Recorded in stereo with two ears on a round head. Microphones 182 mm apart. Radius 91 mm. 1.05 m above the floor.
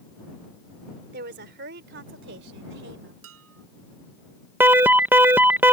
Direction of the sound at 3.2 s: 80° right.